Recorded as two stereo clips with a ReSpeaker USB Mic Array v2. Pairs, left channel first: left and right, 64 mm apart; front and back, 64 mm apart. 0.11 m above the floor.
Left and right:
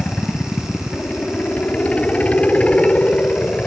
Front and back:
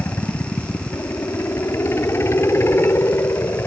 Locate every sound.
0.0 s a helicopter: 30° left